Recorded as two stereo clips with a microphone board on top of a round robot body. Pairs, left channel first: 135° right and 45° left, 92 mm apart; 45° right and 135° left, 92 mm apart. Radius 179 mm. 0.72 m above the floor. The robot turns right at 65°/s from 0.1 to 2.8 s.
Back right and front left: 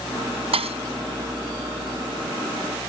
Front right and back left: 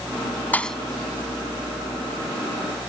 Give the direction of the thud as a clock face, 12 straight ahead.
11 o'clock.